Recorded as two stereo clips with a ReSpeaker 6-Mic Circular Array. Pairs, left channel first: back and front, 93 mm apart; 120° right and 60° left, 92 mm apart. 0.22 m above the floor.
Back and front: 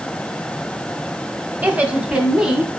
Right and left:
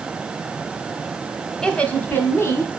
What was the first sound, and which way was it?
A woman speaking, 45° right.